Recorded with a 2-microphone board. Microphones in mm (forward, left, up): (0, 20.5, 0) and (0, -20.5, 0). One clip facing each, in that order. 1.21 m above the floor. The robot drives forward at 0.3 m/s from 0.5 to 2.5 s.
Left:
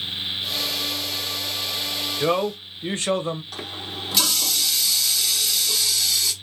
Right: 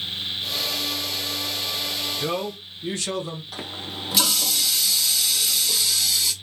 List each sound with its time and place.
2.2 s a man speaking: 35° left (ahead or behind), 0.6 m; by 3.4 s 30° left (ahead or behind), 0.6 m
3.5 s a running tap: 5° right (ahead or behind), 0.8 m